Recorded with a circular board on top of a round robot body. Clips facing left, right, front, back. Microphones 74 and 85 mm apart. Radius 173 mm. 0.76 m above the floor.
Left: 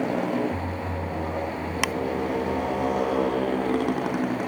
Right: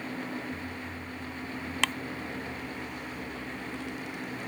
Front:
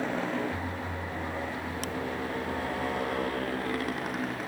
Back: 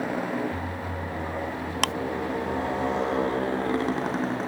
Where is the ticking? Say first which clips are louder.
Left 2 dB, back 8 dB; 165° left.